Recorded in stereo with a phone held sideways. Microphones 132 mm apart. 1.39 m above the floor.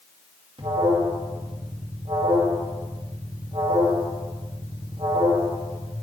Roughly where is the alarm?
Right.